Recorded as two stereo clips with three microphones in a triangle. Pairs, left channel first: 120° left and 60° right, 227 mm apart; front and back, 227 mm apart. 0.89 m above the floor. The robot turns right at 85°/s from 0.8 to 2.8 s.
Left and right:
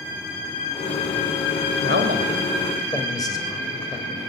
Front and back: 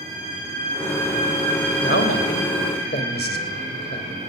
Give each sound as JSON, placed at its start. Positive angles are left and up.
{"t": 1.8, "sound": "a man speaking", "azimuth_deg": -40, "distance_m": 3.0}